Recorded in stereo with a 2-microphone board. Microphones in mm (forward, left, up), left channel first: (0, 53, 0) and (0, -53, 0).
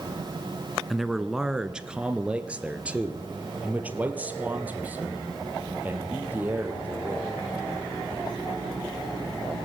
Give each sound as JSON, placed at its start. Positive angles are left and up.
{"t": 0.9, "sound": "a man speaking", "side_deg": 0, "distance_m": 1.3}